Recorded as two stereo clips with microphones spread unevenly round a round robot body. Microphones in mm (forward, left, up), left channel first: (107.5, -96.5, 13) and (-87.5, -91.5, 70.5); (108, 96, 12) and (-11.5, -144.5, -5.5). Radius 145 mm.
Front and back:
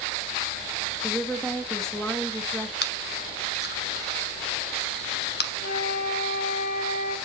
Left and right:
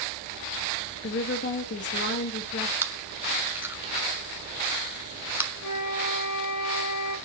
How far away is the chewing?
About 1.3 m.